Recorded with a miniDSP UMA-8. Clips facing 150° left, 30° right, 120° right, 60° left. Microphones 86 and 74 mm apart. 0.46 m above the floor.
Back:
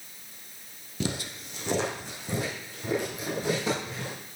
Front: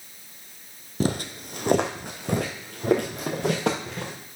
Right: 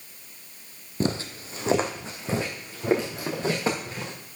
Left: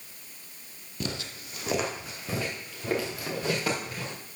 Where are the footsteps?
70° right, 0.8 m; by 4.1 s 55° right, 4 m.